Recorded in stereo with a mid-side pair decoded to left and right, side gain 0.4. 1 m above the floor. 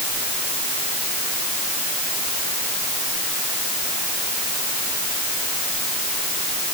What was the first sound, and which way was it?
Only background noise.